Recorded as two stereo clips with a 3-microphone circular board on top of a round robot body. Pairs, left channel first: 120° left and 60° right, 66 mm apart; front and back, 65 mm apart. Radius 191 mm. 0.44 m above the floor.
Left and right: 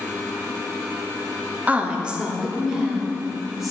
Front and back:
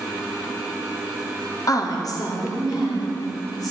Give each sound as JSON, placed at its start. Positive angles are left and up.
{"t": 1.7, "sound": "a woman speaking", "azimuth_deg": 5, "distance_m": 1.1}